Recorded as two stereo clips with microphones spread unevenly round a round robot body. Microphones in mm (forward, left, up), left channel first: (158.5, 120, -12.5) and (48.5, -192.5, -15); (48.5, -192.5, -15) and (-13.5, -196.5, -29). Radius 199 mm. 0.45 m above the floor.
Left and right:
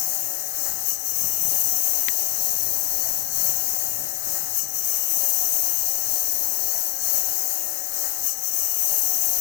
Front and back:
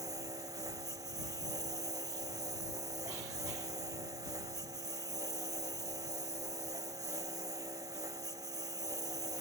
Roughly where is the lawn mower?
Left.